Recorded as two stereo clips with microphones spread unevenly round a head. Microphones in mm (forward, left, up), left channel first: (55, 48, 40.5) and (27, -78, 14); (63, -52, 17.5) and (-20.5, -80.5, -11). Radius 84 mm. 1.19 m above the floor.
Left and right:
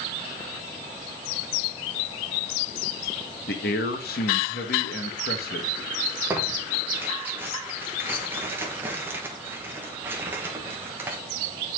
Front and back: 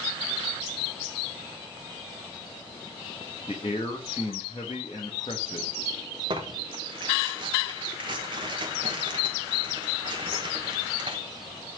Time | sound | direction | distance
3.5 | a man speaking | 80° left | 1.3 m
6.3 | tearing paper | 175° right | 1.3 m